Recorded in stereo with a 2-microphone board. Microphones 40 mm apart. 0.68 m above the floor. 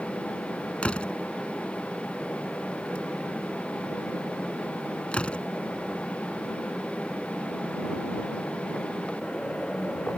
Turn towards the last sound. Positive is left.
turn(degrees=25)  # may be behind; listen again after turning